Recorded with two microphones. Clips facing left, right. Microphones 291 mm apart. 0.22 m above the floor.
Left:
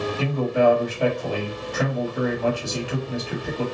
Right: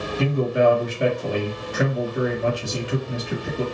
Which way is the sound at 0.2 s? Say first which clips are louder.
Right 2 dB; 20° right (ahead or behind).